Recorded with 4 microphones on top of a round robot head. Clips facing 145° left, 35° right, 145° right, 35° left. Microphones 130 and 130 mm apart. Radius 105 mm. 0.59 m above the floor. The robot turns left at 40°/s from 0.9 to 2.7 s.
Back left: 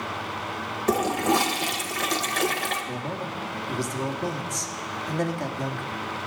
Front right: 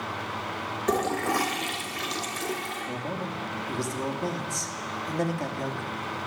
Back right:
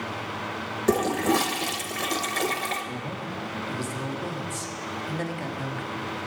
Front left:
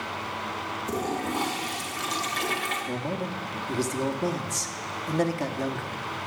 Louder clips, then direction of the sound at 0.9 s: Back left 3 dB, back right 8 dB; 130° right.